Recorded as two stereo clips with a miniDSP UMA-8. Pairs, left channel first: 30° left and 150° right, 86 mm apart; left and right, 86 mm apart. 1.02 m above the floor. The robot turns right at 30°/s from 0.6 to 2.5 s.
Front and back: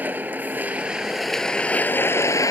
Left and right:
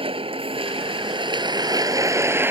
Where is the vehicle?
80° right; by 2.5 s 20° right.